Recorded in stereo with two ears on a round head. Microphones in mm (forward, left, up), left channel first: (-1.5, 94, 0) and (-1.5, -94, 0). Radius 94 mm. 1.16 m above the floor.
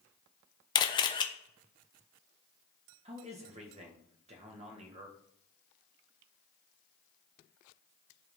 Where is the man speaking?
30° right (ahead or behind), 1.7 m.